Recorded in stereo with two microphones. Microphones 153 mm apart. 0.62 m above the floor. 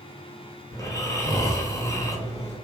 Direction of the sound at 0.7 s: 20° left (ahead or behind).